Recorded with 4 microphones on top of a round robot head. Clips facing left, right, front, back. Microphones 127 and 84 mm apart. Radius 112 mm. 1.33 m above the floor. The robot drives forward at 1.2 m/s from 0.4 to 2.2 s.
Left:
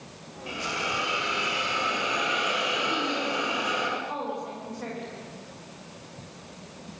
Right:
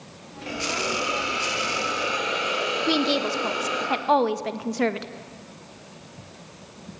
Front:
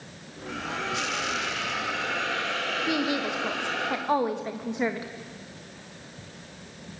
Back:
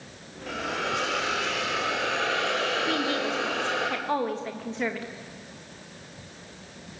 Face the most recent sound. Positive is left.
turn(degrees=-80)